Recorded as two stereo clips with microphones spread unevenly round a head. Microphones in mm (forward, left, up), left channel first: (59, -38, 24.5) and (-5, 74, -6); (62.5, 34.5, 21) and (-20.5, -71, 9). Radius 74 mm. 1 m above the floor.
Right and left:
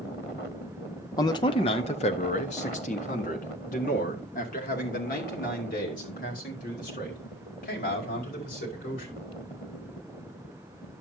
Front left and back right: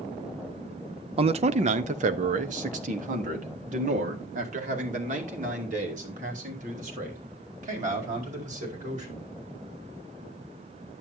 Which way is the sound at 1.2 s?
130° right.